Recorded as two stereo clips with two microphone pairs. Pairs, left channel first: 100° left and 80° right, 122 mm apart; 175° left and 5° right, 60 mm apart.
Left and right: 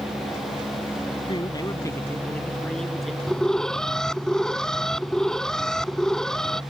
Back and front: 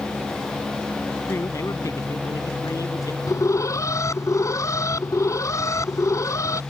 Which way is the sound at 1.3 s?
140° left.